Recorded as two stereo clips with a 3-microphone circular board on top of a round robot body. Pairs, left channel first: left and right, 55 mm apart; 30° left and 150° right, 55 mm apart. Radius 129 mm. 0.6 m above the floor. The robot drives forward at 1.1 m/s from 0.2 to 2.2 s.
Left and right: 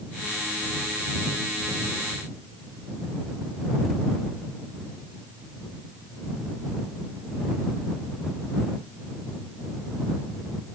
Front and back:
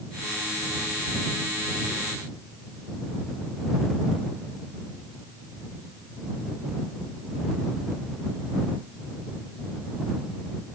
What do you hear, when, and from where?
Only background noise.